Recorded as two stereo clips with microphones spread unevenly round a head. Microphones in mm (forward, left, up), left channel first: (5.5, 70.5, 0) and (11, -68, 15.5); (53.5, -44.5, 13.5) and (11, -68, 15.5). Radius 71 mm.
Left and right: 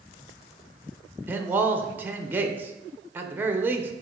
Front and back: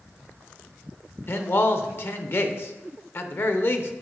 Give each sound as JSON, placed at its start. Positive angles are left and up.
{"t": 1.3, "sound": "a man speaking", "azimuth_deg": -10, "distance_m": 1.1}